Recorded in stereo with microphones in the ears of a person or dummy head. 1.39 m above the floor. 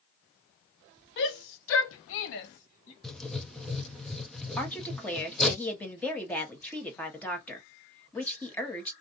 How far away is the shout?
About 0.8 m.